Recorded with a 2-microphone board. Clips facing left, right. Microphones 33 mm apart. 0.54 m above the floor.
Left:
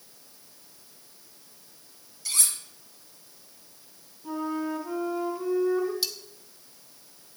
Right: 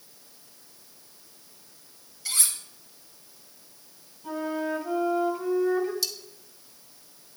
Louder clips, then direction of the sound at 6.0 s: Even; 30° left (ahead or behind).